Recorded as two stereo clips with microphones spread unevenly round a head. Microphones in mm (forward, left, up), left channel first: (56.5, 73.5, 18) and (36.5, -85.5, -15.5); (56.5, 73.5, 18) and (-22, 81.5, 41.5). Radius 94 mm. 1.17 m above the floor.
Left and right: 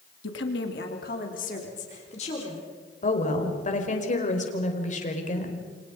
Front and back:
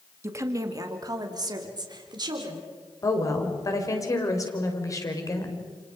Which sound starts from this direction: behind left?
A woman speaking, at 0.2 s.